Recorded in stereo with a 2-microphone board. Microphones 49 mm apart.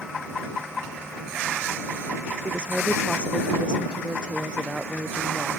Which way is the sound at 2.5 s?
15° right (ahead or behind).